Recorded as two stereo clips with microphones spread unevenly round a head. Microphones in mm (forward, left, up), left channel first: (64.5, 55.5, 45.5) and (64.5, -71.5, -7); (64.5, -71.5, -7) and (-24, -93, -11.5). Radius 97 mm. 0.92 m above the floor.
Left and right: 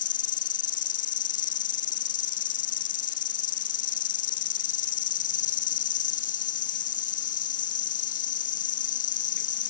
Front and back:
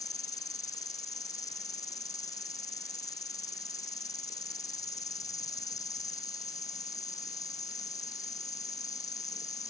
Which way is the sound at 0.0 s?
85° left.